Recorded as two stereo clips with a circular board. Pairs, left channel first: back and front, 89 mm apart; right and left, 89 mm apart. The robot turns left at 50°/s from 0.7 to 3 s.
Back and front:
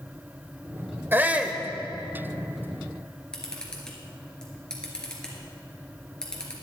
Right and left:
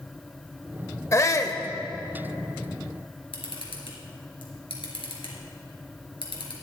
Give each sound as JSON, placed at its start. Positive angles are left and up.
{"t": 1.1, "sound": "a shout", "azimuth_deg": -55, "distance_m": 1.0}
{"t": 3.3, "sound": "a camera shutter", "azimuth_deg": -100, "distance_m": 3.0}